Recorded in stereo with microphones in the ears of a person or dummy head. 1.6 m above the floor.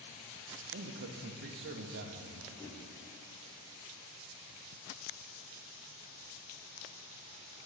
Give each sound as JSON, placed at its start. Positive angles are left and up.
{"t": 0.7, "sound": "a man speaking", "side_deg": -50, "distance_m": 0.7}
{"t": 2.5, "sound": "a whoosh", "side_deg": 10, "distance_m": 0.5}